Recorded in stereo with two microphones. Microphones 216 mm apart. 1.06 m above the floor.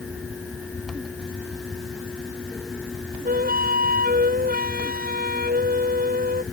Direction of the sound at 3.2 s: 45° right (ahead or behind).